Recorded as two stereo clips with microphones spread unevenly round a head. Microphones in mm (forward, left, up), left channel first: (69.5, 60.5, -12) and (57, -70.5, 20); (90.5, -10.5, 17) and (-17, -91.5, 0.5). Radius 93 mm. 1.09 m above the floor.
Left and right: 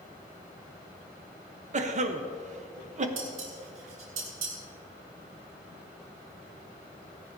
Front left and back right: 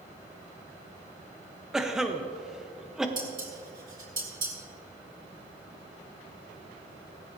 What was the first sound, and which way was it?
A cough, 60° right.